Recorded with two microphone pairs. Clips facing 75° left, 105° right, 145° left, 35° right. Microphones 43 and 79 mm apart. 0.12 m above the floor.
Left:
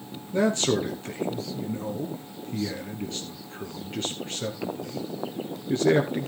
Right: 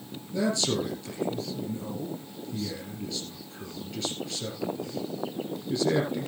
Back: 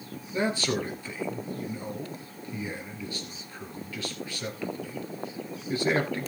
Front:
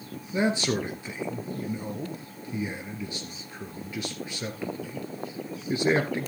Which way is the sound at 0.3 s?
35° left.